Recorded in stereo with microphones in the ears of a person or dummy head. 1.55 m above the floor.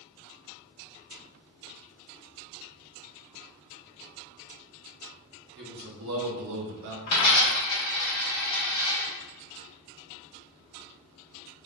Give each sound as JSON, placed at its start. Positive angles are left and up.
{"t": 5.6, "sound": "a man speaking", "side_deg": -60, "distance_m": 1.0}
{"t": 7.1, "sound": "a dropped coin", "side_deg": 20, "distance_m": 1.0}